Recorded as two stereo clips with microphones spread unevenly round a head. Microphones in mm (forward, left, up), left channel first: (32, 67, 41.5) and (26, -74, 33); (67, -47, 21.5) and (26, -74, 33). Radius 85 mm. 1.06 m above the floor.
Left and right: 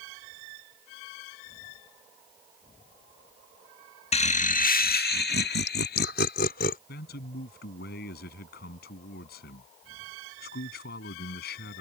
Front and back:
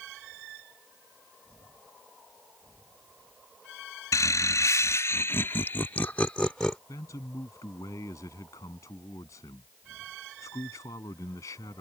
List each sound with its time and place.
4.1 s laughter: 40° left; by 6.8 s 120° left
6.9 s a man speaking: 80° left